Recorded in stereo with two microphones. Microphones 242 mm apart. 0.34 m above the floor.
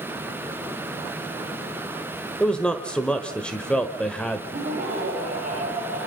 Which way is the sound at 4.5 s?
40° right (ahead or behind).